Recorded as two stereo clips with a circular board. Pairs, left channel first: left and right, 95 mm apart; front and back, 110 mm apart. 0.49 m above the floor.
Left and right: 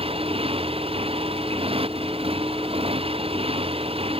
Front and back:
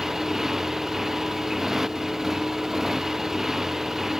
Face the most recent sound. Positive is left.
turn(degrees=-95)